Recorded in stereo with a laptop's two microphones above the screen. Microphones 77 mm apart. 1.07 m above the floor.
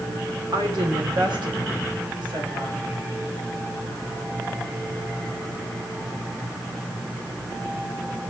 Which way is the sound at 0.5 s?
65° right (ahead or behind).